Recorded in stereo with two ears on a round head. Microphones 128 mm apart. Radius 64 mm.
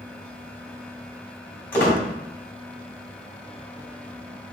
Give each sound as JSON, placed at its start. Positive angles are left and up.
{"t": 1.7, "sound": "a squeak", "side_deg": 15, "distance_m": 1.8}